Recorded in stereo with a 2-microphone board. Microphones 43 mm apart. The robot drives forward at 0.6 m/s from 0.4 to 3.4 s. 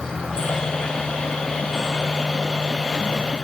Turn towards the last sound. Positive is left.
turn(degrees=5)  # may be behind; listen again after turning